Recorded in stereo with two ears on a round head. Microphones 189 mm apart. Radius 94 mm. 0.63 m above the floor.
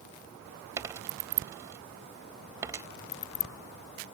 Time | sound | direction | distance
0.8 | a dropped coin | 15° right (ahead or behind) | ?